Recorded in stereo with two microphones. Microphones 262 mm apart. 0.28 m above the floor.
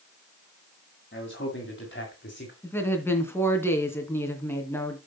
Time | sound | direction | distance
1.1 | a man speaking | 45° left (ahead or behind) | 2.5 m
2.6 | a woman speaking | 10° left (ahead or behind) | 2.5 m